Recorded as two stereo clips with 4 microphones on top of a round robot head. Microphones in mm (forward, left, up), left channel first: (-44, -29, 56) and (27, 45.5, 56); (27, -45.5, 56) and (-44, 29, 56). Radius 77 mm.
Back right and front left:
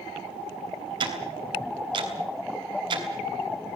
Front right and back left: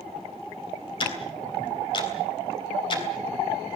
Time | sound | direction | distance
1.0 | ticking | straight ahead | 3 m